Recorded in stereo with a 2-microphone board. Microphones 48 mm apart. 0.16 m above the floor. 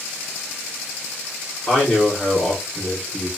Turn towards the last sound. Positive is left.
turn(degrees=20)  # may be behind; listen again after turning